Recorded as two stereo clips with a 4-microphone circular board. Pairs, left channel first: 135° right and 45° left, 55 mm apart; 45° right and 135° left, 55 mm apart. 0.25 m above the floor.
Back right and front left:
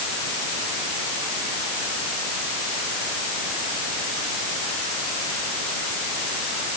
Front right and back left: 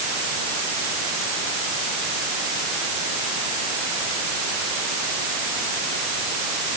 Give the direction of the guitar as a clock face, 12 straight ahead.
I don't hear a guitar.